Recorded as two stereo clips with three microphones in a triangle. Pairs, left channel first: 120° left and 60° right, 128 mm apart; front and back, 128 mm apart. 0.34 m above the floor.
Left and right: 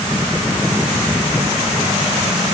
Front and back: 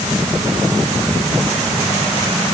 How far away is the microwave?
No microwave in this recording.